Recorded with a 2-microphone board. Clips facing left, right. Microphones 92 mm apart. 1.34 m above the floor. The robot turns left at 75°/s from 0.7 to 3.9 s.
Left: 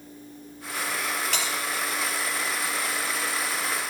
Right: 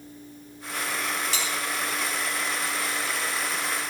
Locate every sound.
1.3 s a bell: 70° left (ahead or behind), 3 m; by 1.5 s 75° left (ahead or behind), 3 m